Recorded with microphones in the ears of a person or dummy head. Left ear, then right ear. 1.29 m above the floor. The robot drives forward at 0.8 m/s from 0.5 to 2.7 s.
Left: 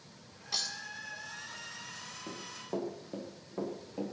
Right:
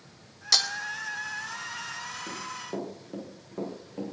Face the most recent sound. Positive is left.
turn(degrees=15)  # may be behind; listen again after turning